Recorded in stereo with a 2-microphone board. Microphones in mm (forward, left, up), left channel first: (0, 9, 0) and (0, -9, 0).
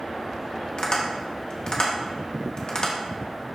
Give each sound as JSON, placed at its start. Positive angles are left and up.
{"t": 0.8, "sound": "tapping", "side_deg": 40, "distance_m": 1.4}